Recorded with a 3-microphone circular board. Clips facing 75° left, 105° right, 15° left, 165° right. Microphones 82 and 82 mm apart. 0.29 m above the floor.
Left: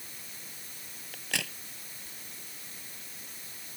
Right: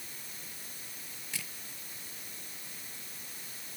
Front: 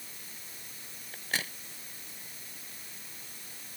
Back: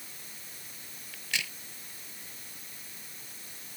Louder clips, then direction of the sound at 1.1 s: Left 10 dB, front 2 dB; 65° left.